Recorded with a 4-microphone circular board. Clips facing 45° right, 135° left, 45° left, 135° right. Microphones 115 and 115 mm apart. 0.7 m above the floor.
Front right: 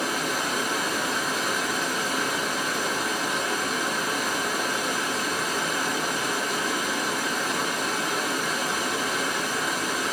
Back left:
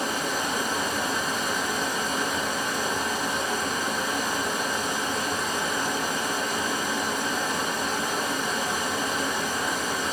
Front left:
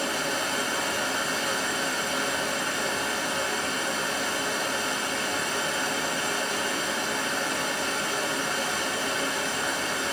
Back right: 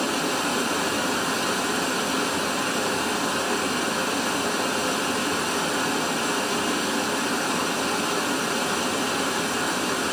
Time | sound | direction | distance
0.0 | running water | 135° right | 2 m